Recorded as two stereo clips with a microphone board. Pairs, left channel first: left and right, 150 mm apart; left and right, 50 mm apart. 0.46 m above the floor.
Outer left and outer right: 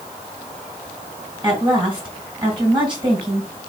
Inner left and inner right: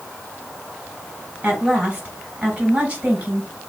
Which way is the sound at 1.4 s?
30° right (ahead or behind).